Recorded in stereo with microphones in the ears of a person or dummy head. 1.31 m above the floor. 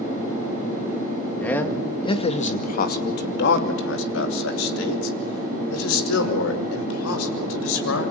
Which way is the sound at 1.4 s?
10° left (ahead or behind).